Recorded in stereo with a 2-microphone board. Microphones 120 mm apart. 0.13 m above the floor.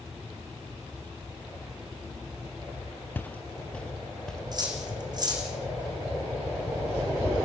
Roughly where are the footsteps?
Centre.